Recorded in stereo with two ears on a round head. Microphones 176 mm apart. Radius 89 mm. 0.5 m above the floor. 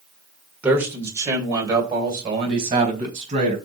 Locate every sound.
0.6 s a man speaking: 10° right (ahead or behind), 2 m; by 3.6 s 30° right (ahead or behind), 4.5 m